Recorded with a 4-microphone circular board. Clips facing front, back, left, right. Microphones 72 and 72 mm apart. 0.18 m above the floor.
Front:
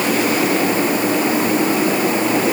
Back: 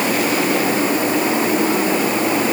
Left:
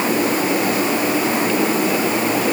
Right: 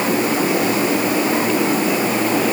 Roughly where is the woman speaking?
No woman speaking in this recording.